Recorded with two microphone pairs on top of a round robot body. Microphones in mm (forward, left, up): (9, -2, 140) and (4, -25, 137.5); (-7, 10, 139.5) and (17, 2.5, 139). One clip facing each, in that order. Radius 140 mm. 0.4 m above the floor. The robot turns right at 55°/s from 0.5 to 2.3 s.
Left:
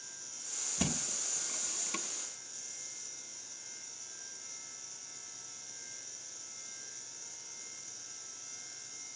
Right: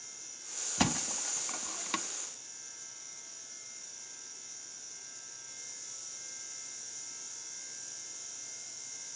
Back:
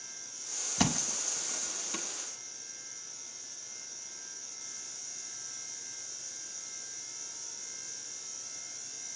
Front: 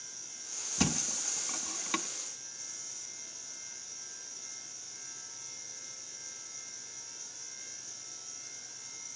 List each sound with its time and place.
0.8 s a thud: 135° right, 0.6 m; by 2.0 s 65° right, 0.6 m